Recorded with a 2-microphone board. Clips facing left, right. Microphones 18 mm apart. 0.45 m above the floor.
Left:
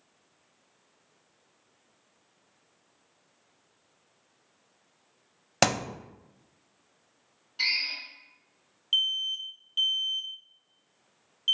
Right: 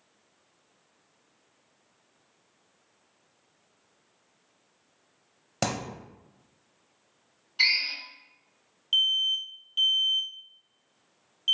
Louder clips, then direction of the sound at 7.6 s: Right 4 dB; 20° right (ahead or behind).